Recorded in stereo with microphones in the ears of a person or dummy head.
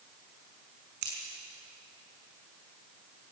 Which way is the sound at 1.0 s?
65° right (ahead or behind).